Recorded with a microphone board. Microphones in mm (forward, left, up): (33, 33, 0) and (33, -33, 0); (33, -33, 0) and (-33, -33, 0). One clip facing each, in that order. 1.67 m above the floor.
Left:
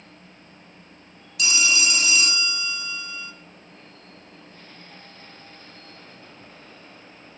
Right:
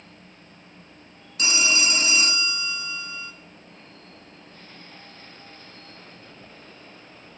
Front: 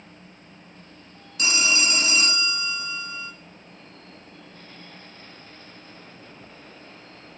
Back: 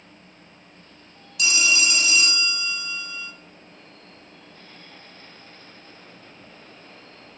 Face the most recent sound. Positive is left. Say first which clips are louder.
# even, back 1 dB
turn(degrees=-45)